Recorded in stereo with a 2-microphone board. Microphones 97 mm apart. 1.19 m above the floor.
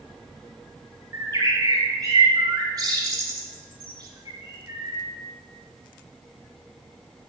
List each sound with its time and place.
1.1 s a bird: 40° right (ahead or behind), 1.4 m